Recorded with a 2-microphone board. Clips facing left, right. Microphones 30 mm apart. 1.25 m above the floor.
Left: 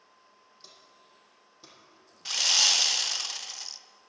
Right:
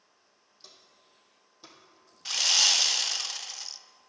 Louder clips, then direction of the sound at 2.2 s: Even; 5° left (ahead or behind).